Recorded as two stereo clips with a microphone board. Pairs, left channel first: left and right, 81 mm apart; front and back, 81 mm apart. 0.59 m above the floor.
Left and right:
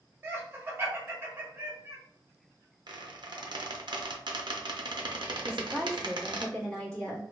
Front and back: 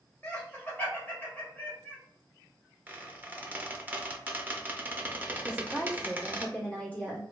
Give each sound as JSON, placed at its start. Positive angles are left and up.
{"t": 0.2, "sound": "laughter", "azimuth_deg": -50, "distance_m": 1.1}
{"t": 2.9, "sound": "a squeak", "azimuth_deg": -110, "distance_m": 0.5}
{"t": 5.5, "sound": "a woman speaking", "azimuth_deg": 30, "distance_m": 1.2}